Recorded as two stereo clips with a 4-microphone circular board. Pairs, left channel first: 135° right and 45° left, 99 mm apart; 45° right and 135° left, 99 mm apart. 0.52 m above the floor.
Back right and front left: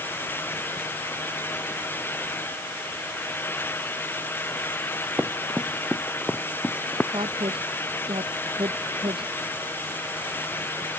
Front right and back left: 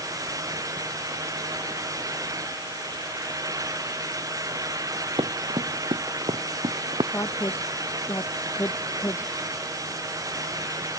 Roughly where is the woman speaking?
Ahead.